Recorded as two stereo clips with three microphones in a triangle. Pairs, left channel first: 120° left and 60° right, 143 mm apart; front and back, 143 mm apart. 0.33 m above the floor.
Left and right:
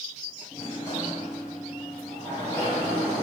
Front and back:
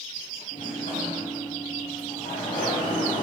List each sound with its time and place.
0.5 s a sliding door: 45° left, 7 m